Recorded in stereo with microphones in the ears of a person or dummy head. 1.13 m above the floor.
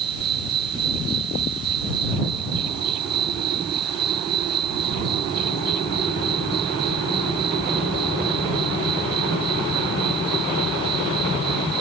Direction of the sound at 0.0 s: 30° right (ahead or behind).